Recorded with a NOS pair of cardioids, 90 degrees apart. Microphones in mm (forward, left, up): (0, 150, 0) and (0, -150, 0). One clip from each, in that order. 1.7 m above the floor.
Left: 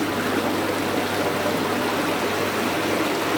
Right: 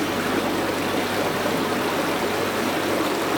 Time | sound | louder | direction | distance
0.0 | running water | even | straight ahead | 0.9 m